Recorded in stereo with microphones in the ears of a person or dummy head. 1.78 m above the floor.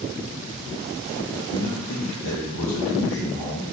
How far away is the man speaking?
About 1.2 m.